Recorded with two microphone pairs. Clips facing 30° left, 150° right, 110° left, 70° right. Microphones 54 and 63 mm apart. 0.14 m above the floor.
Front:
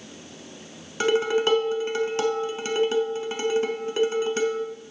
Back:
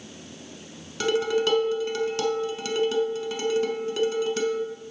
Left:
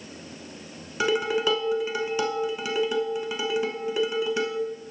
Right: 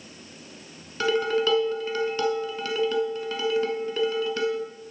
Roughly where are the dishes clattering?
Ahead left.